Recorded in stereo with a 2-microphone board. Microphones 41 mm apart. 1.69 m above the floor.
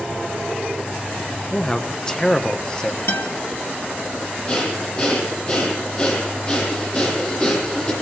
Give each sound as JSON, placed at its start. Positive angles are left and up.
{"t": 1.5, "sound": "a man speaking", "side_deg": 20, "distance_m": 1.9}
{"t": 3.1, "sound": "a guitar", "side_deg": 80, "distance_m": 3.5}
{"t": 4.5, "sound": "breathing", "side_deg": 25, "distance_m": 9.5}